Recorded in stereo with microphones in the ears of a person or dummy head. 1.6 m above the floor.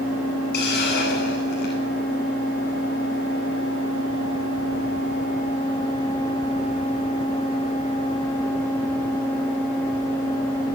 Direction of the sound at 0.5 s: 50° left (ahead or behind).